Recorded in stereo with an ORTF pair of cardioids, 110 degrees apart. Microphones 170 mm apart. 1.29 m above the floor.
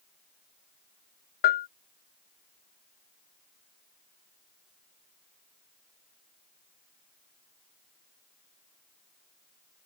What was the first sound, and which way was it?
A bell, 65° left.